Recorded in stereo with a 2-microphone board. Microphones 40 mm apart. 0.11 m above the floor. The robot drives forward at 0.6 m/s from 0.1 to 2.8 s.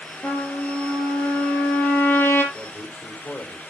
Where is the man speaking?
40° left (ahead or behind), 4 m; by 3.6 s 35° left (ahead or behind), 4 m.